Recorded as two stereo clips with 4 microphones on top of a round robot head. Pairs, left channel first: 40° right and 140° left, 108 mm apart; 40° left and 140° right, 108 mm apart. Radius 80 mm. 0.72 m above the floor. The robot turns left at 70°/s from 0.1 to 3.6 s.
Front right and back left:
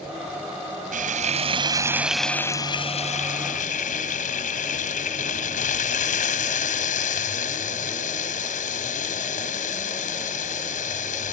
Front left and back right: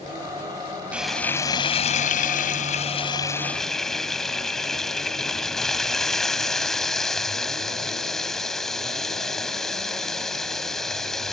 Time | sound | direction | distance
0.9 | frying | 140° left | ?